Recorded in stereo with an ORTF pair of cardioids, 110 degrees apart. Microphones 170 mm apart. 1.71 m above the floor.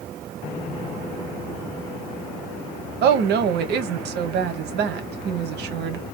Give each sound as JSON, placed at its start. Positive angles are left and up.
{"t": 3.0, "sound": "a woman speaking", "azimuth_deg": -70, "distance_m": 1.2}